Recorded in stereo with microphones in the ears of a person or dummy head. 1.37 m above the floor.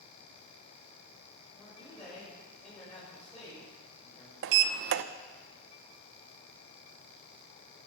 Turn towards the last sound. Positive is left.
turn(degrees=-60)  # may be behind; listen again after turning